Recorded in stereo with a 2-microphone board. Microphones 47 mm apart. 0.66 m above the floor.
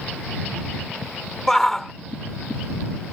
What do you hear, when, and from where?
1.5 s a shout: 10° left (ahead or behind)